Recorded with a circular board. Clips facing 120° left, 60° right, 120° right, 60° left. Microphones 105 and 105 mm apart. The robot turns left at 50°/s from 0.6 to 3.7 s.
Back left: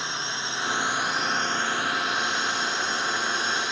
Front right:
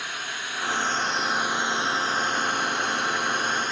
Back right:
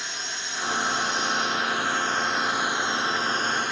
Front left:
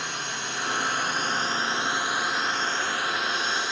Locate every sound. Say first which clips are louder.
0.0 s a drone: back left 2 dB, front left 3 dB; 60° left; by 3.7 s 95° right